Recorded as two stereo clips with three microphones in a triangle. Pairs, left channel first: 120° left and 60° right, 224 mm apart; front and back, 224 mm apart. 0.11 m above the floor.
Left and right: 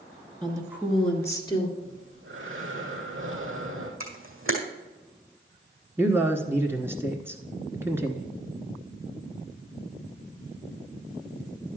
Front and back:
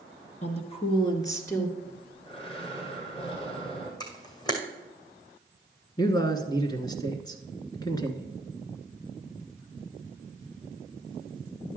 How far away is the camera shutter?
About 2 m.